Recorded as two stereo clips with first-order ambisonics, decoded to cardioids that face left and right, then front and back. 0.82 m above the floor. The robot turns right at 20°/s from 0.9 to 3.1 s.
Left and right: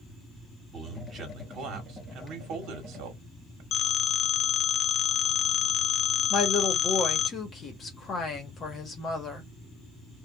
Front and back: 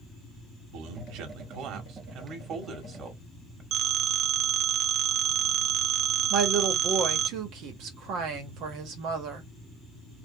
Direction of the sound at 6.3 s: 155° left.